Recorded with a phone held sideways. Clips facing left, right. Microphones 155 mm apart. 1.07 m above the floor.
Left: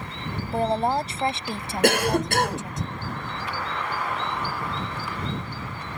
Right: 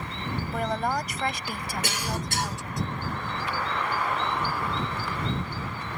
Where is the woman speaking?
30° left (ahead or behind); by 2.8 s 20° left (ahead or behind).